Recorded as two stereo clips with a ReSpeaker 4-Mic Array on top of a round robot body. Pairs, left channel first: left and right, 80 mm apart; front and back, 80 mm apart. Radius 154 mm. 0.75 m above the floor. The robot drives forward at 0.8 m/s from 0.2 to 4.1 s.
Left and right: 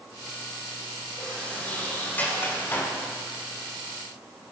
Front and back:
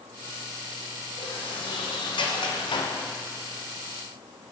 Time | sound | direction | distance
1.2 | a sliding door | 15° left | 3 m